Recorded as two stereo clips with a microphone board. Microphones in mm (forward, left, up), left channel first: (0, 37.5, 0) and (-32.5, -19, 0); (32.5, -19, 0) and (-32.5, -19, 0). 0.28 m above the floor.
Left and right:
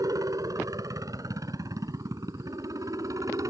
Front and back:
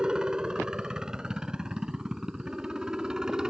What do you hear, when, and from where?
0.0 s a helicopter: 105° right; by 3.5 s 100° right